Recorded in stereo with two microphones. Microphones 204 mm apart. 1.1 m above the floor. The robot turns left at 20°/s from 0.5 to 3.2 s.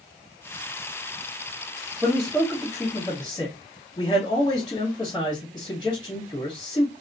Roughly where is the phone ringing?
No phone ringing in this recording.